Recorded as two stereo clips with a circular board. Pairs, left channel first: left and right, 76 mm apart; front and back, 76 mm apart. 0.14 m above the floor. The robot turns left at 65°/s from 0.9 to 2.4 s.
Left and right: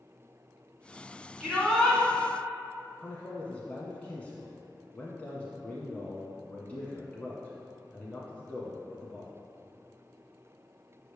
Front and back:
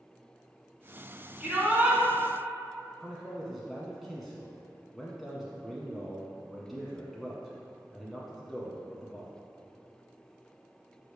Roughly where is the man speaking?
Left.